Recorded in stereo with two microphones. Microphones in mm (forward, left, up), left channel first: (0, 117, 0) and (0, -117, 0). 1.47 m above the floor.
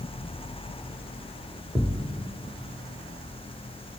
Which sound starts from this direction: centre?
A thud, at 1.8 s.